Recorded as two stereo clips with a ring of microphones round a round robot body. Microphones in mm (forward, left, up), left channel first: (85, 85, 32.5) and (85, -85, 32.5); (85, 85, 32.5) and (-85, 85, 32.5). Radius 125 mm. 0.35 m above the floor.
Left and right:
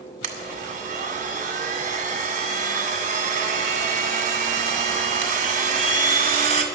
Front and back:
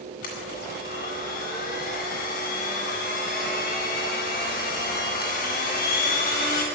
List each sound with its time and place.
0.2 s a blender: 50° right, 1.9 m